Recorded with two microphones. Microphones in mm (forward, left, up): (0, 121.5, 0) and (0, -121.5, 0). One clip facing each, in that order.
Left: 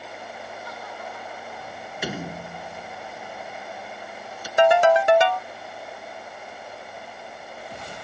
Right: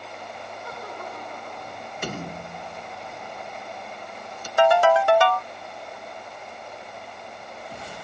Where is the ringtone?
20° left (ahead or behind).